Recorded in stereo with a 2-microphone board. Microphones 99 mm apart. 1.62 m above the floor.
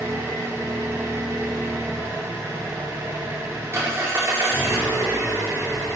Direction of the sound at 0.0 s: 25° right (ahead or behind).